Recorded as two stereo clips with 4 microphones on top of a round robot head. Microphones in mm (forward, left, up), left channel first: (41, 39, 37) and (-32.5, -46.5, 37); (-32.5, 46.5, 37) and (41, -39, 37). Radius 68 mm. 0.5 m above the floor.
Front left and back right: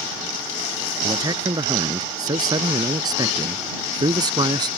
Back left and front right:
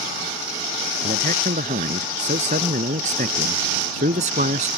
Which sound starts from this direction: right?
A man speaking, at 1.0 s.